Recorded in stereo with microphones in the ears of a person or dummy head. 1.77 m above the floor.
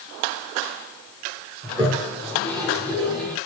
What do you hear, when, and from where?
1.6 s a toilet flushing: 5° left (ahead or behind), 1.5 m